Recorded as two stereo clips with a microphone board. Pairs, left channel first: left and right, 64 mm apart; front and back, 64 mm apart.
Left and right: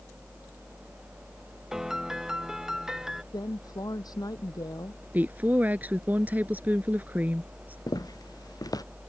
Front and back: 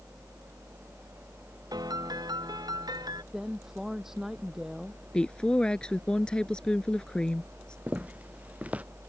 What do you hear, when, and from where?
1.7 s a piano: 175° right
3.3 s a woman speaking: 100° left
5.1 s a woman speaking: 60° right
7.9 s footsteps: 110° left